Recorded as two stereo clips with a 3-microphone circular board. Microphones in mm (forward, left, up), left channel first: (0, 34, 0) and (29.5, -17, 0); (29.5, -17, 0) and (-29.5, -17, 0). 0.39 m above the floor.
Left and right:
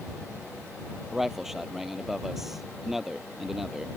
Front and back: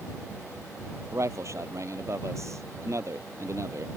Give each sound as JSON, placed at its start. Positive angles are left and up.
{"t": 1.1, "sound": "a man speaking", "azimuth_deg": -145}